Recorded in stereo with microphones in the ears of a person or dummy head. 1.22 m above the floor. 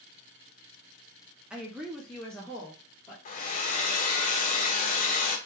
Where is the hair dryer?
35° left (ahead or behind), 0.5 m.